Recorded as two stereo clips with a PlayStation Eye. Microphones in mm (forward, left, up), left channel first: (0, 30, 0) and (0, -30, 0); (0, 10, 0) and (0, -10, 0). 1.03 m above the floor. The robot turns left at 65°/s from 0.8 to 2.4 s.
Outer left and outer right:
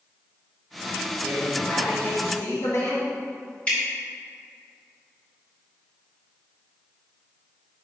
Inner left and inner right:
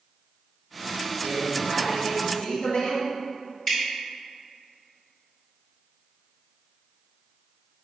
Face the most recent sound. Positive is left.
turn(degrees=20)  # may be behind; listen again after turning